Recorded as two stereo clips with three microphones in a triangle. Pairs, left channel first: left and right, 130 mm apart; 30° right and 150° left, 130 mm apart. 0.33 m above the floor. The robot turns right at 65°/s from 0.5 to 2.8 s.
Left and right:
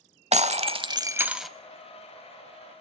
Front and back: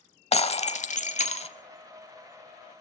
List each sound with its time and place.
0.3 s breaking glass: 65° right, 0.8 m; by 1.5 s straight ahead, 0.8 m